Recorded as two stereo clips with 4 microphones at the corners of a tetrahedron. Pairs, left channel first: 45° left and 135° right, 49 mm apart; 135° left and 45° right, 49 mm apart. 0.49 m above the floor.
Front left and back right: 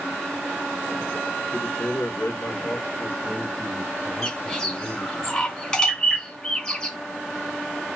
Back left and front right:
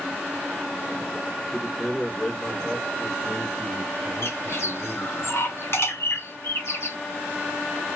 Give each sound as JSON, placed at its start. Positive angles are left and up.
{"t": 1.5, "sound": "a man speaking", "azimuth_deg": 40, "distance_m": 1.1}
{"t": 4.2, "sound": "a bird", "azimuth_deg": 120, "distance_m": 2.0}